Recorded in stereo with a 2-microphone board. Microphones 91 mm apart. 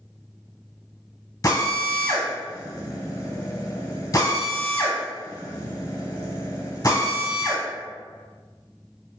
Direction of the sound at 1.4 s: 40° left (ahead or behind).